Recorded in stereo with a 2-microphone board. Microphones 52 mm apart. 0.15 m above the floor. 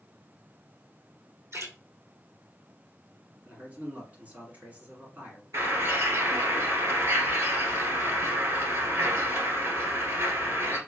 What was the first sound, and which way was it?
A splash, 65° right (ahead or behind).